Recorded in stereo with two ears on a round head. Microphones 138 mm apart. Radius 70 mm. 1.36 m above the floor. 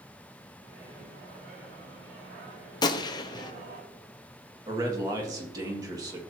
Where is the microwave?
80° right, 3.5 m.